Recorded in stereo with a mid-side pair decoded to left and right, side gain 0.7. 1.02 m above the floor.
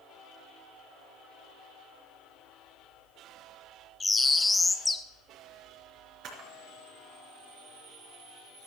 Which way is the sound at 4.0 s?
10° left.